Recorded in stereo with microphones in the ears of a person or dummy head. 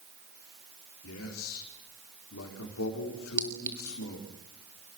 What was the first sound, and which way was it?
A man speaking, 80° left.